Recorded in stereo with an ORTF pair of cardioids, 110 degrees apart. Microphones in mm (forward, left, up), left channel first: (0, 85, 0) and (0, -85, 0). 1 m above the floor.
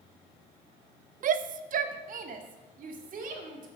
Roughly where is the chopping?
I don't hear chopping.